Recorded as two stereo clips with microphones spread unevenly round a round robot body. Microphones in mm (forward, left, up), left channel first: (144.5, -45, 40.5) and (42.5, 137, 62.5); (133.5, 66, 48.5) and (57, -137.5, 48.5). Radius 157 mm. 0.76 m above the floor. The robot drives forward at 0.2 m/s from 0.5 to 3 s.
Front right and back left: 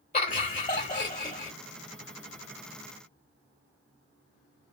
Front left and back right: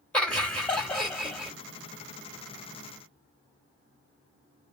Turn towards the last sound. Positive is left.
turn(degrees=-30)